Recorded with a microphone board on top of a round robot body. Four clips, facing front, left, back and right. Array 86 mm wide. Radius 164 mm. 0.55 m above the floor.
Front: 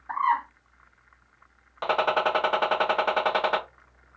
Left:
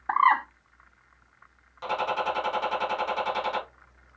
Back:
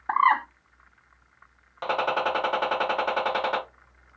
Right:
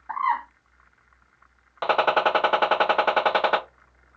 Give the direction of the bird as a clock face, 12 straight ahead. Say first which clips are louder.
Left 4 dB, back 4 dB; 7 o'clock.